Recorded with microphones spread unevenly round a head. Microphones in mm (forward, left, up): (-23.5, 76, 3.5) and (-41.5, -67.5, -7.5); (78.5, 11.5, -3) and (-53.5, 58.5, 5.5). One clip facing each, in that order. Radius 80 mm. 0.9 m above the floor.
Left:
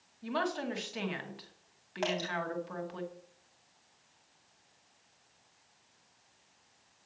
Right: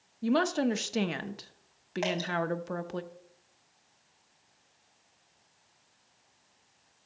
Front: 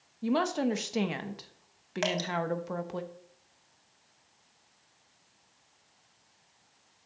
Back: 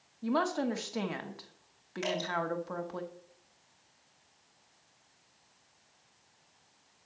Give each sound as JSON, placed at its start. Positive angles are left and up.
{"t": 0.2, "sound": "a woman speaking", "azimuth_deg": -85, "distance_m": 0.9}
{"t": 2.0, "sound": "dripping", "azimuth_deg": -15, "distance_m": 3.5}